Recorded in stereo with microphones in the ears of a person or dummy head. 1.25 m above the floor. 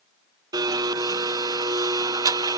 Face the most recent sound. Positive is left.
turn(degrees=-15)  # may be behind; listen again after turning